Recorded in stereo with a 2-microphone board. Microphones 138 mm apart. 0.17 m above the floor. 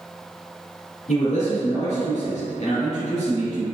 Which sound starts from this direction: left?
A man speaking, at 1.1 s.